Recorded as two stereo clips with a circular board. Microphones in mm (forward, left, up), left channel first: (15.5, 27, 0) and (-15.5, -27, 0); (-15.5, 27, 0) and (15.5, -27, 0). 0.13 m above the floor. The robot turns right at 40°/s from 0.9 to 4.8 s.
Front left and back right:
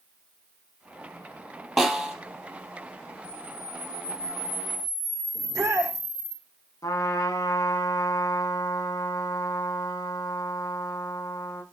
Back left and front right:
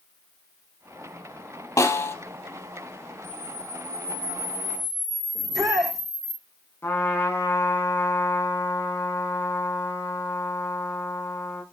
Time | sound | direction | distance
1.8 | a snare drum | 145° left | 2.5 m
3.2 | a camera shutter | 55° left | 4.5 m
5.3 | a shout | 155° right | 5.5 m
6.8 | a trumpet | 70° left | 6 m